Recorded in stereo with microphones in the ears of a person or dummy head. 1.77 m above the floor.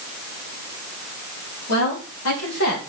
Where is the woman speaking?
85° left, 3.5 m; by 2.8 s 80° left, 2.5 m.